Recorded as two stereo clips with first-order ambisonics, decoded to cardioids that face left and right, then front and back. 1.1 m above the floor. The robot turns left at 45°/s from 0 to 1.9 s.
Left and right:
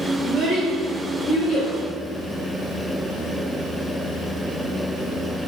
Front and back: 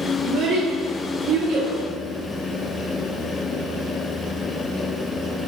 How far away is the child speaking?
About 1.1 m.